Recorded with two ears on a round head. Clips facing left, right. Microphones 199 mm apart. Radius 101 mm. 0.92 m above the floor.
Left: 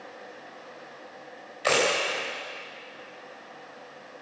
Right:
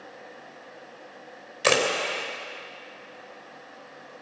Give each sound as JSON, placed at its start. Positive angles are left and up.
{"t": 1.6, "sound": "a camera shutter", "side_deg": -55, "distance_m": 3.0}